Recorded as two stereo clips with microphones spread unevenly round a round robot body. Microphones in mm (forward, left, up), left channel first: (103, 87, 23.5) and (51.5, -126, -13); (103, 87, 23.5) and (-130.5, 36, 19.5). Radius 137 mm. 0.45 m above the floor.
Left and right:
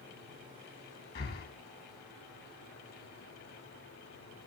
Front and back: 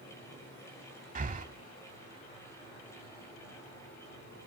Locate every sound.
1.1 s breathing: 135° left, 0.9 m